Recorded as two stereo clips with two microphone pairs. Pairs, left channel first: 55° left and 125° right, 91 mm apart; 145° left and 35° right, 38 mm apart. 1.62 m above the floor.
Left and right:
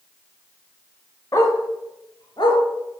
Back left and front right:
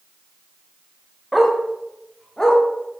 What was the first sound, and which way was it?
A dog barking, 45° left.